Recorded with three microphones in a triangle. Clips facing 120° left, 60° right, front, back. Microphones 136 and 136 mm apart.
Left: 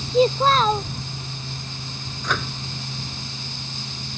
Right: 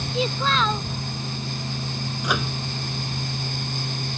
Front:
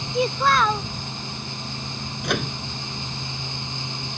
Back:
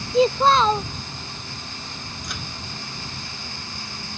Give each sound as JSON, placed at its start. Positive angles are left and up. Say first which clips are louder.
{"t": 0.1, "sound": "a child speaking", "louder": "left 7 dB, back 4 dB", "azimuth_deg": 130}
{"t": 2.2, "sound": "a microwave", "louder": "right 1 dB, front 14 dB", "azimuth_deg": 20}